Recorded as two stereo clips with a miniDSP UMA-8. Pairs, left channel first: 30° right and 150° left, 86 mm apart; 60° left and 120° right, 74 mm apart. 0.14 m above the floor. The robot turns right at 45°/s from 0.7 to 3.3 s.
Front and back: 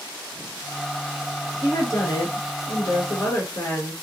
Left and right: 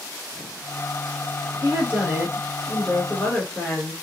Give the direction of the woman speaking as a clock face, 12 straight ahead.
3 o'clock.